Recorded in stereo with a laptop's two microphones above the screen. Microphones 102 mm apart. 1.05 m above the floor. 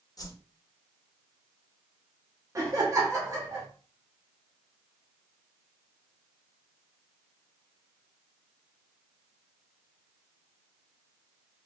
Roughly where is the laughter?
Right.